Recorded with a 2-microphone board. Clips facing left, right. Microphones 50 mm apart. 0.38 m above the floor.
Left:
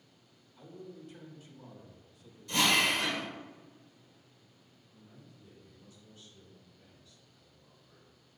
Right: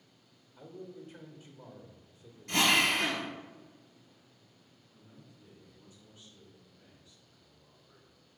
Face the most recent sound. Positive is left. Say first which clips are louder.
# left 1 dB
turn(degrees=-35)  # may be behind; listen again after turning